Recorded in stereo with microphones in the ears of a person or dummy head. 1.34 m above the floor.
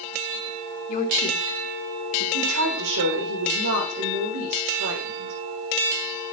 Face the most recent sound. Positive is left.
turn(degrees=-85)